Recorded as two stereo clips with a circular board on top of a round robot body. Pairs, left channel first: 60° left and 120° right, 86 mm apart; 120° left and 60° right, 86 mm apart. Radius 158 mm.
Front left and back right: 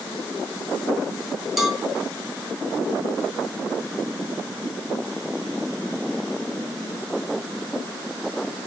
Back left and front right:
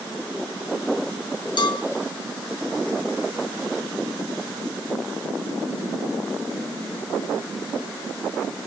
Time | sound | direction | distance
1.6 | a cowbell | 155° left | 1.9 m